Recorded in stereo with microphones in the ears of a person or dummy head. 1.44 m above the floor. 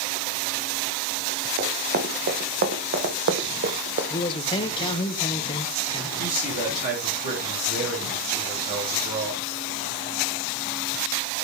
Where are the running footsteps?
50° right (ahead or behind), 3.5 m; by 4.0 s 40° right (ahead or behind), 1.9 m.